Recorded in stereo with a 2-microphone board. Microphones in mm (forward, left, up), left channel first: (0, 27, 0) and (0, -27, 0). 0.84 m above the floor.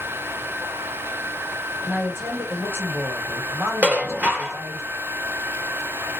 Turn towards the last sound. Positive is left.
turn(degrees=-35)  # may be behind; listen again after turning